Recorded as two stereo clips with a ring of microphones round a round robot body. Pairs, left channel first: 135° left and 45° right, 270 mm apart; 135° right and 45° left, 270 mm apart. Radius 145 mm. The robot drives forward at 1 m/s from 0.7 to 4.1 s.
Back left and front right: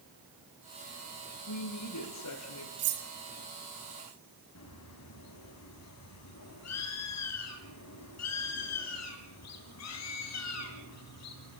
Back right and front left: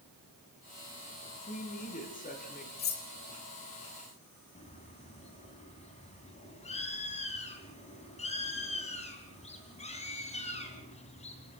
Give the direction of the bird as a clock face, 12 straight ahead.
7 o'clock.